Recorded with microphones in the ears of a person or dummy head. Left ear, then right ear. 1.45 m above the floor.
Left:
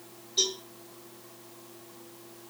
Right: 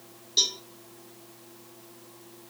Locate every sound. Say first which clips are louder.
0.4 s a cowbell: right 3 dB; 85° right, 1.1 m